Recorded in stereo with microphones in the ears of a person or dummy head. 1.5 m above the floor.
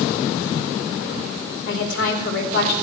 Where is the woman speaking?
75° left (ahead or behind), 4 m.